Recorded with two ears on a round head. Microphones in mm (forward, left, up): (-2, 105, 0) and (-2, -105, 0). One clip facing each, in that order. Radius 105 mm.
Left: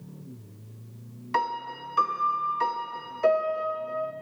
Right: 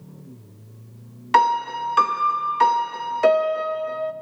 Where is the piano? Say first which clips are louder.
Right 10 dB; 70° right (ahead or behind), 0.5 m.